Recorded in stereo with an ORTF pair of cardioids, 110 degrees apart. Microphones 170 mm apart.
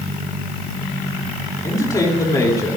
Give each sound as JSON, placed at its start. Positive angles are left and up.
{"t": 1.6, "sound": "a man speaking", "azimuth_deg": 20, "distance_m": 3.0}